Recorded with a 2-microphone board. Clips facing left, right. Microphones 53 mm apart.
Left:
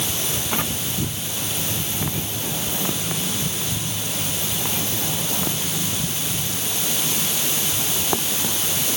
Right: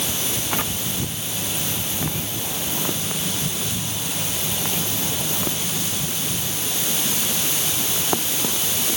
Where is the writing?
I don't hear writing.